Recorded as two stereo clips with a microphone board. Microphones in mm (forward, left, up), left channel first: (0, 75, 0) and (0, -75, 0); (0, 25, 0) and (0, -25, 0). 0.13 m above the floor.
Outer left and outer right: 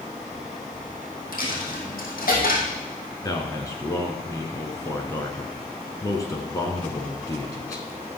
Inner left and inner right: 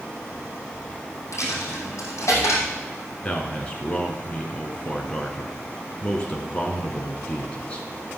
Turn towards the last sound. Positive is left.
turn(degrees=25)  # may be behind; listen again after turning